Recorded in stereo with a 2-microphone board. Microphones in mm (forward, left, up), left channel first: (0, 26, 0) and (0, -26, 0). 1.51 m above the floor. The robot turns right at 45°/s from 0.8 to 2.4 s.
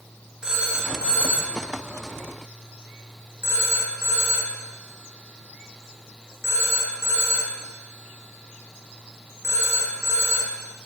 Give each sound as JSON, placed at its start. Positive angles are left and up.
{"t": 0.4, "sound": "a phone ringing", "side_deg": -15, "distance_m": 1.1}